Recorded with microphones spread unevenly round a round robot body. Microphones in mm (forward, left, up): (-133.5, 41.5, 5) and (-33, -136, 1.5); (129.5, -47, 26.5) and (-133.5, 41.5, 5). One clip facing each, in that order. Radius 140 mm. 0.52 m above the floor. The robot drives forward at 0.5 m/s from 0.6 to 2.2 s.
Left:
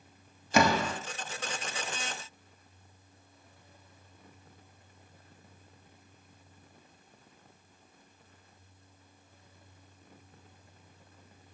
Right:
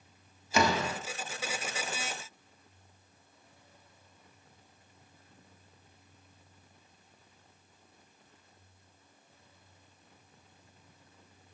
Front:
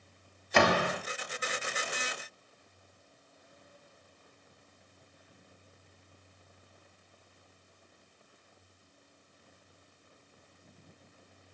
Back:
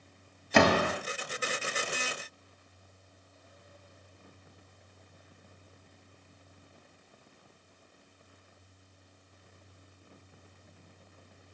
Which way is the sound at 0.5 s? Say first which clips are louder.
Left 3 dB, back 3 dB; 155° left.